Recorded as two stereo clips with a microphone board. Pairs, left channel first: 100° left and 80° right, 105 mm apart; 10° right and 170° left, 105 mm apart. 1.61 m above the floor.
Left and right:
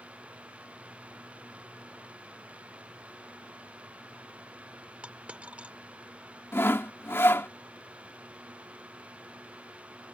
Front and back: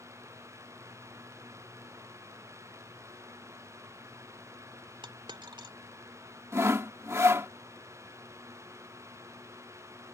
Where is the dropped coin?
155° right.